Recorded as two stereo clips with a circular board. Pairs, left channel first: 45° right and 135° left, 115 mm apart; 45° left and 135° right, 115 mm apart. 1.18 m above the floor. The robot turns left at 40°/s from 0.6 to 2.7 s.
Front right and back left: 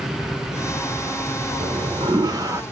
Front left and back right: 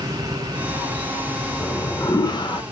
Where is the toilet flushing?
115° left, 1.0 m; by 2.6 s 75° left, 1.0 m.